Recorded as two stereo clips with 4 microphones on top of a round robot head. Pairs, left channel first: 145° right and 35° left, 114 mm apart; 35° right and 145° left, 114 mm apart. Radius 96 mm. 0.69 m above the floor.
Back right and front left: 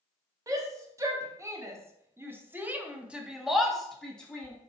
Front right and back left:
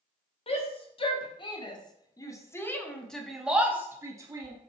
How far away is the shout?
About 1.7 m.